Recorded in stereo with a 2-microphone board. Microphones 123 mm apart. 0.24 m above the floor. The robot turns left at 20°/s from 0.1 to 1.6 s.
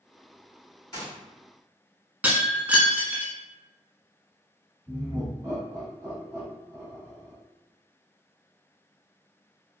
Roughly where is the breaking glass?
Centre.